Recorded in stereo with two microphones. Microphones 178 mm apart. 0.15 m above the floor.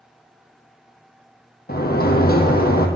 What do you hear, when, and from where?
1.7 s a sliding door: 65° left (ahead or behind), 1.5 m